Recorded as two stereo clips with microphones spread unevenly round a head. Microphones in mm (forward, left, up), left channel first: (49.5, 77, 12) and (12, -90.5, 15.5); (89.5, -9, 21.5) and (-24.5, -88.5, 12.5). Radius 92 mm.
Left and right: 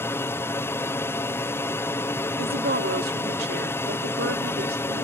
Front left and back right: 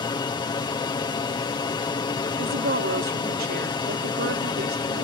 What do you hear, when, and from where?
0.0 s an aircraft: 20° left
2.4 s a woman speaking: 145° right